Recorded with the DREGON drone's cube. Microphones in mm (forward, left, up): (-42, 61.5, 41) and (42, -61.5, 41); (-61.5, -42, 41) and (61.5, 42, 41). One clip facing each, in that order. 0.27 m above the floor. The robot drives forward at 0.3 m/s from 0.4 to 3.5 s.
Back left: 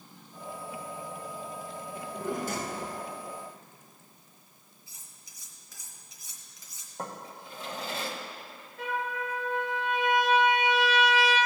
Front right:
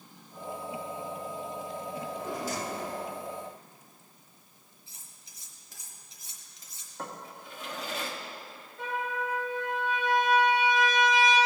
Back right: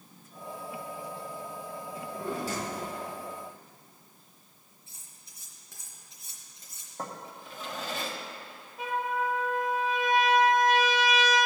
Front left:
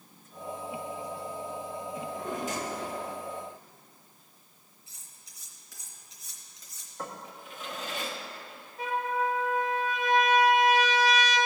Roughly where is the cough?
I don't hear a cough.